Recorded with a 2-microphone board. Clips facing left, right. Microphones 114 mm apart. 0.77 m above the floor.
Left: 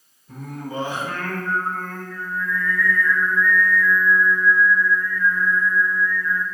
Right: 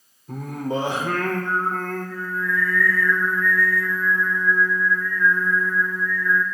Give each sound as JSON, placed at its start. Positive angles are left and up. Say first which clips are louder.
{"t": 0.3, "sound": "singing", "louder": "right 5 dB", "side_deg": -85, "distance_m": 1.0}